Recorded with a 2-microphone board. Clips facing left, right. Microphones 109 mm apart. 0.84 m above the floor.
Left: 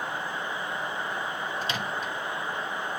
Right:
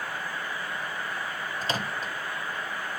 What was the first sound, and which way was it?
A microwave, 40° right (ahead or behind).